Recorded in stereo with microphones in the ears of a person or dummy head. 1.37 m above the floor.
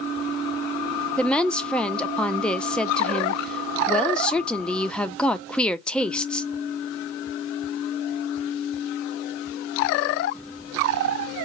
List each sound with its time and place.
1.2 s a woman speaking: 5° left (ahead or behind), 0.6 m